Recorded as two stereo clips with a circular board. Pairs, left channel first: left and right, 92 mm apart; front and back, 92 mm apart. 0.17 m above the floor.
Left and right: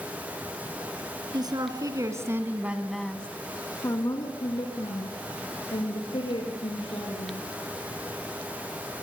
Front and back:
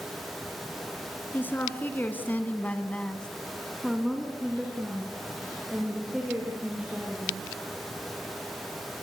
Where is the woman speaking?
65° right, 3 m; by 7.5 s 100° left, 6.5 m.